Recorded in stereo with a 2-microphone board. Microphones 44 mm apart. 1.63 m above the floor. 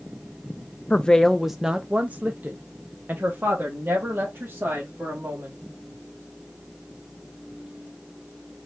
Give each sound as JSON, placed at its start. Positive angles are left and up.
{"t": 0.9, "sound": "a woman speaking", "side_deg": 25, "distance_m": 0.5}